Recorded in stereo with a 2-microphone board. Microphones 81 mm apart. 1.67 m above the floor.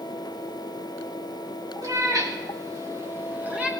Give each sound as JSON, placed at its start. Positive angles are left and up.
{"t": 1.8, "sound": "a cat meowing", "side_deg": -45, "distance_m": 1.5}